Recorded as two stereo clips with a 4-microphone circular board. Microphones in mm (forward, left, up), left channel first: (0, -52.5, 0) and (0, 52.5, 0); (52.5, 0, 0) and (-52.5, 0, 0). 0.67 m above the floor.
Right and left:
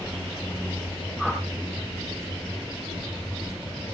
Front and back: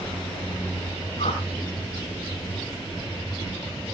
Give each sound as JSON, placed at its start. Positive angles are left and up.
{"t": 1.2, "sound": "a whoosh", "azimuth_deg": 0, "distance_m": 7.5}